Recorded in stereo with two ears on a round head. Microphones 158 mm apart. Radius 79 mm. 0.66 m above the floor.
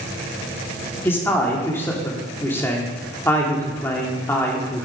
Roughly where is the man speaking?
Centre.